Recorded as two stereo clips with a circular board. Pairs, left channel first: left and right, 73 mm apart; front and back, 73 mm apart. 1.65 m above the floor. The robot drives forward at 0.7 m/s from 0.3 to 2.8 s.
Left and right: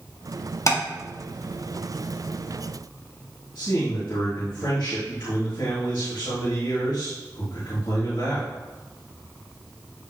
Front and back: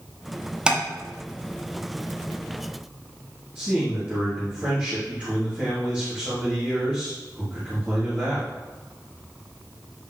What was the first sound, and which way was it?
Tapping, 110° left.